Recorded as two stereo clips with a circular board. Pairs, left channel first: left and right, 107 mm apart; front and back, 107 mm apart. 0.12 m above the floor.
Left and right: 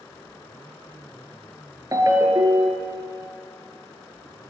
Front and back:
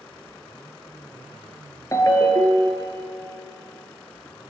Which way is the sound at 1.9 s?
50° right.